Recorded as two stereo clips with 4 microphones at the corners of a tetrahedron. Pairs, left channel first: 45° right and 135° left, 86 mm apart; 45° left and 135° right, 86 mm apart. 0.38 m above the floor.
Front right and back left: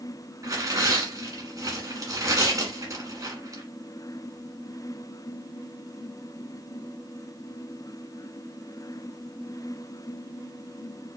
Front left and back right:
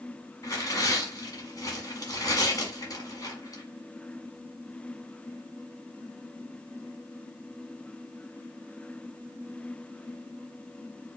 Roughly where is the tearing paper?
Left.